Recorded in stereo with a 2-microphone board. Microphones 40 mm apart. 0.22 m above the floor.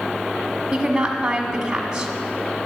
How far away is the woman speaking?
About 1.3 m.